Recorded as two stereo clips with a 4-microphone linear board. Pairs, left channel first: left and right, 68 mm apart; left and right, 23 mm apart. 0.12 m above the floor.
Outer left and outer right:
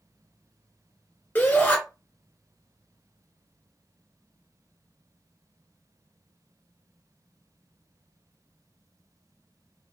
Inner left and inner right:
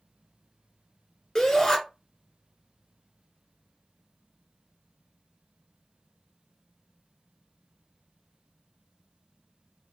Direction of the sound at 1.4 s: 25° left (ahead or behind).